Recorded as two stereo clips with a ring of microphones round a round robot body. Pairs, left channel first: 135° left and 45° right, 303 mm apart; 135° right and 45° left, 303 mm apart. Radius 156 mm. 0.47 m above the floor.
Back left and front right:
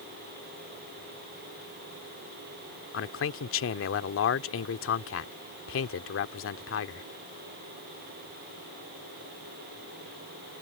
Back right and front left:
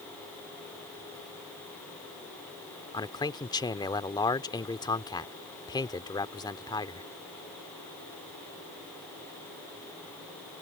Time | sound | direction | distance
2.9 | a man speaking | 155° left | ?